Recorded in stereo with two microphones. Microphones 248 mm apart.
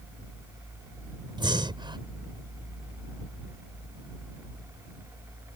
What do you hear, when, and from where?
1.4 s breathing: 15° right (ahead or behind)